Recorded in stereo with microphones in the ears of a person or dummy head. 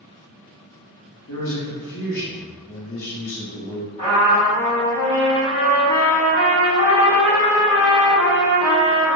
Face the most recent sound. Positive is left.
turn(degrees=20)  # may be behind; listen again after turning